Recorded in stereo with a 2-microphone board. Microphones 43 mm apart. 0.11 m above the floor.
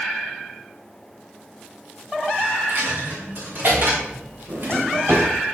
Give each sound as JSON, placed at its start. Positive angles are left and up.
{"t": 2.7, "sound": "a dropped coin", "side_deg": -55, "distance_m": 3.5}
{"t": 4.5, "sound": "a drawer", "side_deg": -75, "distance_m": 2.5}